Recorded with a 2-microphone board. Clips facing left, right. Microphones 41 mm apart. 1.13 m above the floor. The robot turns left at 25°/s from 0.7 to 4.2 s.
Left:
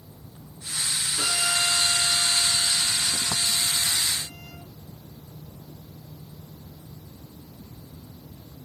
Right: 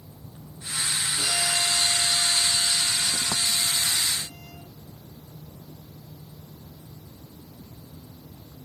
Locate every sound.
1.2 s a violin: 150° left, 5.5 m; by 4.6 s 75° left, 5.5 m